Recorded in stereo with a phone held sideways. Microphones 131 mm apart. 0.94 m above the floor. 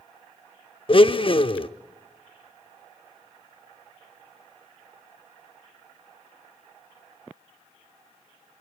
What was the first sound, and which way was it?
A blender, 40° left (ahead or behind).